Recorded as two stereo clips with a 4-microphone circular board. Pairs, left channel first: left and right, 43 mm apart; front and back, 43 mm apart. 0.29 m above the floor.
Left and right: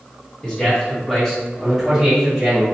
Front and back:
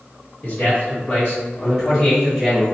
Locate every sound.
0.4 s a man speaking: 30° left, 1.8 m; by 2.6 s 120° right, 1.3 m